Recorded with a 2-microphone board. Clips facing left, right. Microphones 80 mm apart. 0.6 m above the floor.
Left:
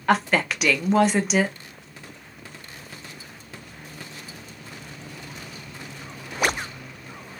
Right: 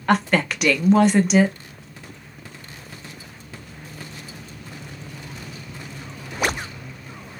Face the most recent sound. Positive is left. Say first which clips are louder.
# right 1 dB
turn(degrees=0)  # may be behind; listen again after turning